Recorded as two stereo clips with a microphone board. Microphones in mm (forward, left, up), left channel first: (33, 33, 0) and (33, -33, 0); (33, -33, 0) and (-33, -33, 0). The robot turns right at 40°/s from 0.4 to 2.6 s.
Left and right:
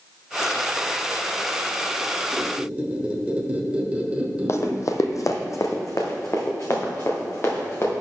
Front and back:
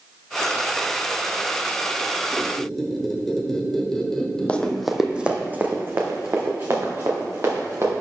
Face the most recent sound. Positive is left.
turn(degrees=140)